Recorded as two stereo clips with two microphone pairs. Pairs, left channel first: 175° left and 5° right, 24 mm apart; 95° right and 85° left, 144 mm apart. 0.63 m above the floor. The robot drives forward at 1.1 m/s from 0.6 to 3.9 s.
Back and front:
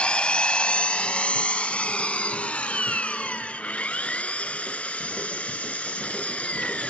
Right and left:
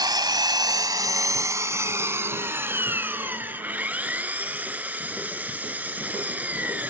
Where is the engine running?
150° left; by 6.9 s 165° left.